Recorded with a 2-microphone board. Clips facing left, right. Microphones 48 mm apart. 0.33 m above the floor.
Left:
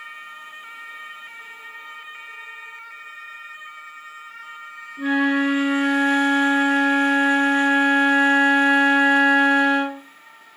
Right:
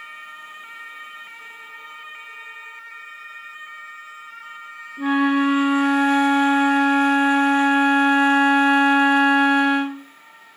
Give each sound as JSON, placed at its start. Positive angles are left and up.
{"t": 5.0, "sound": "a flute", "side_deg": -20, "distance_m": 1.0}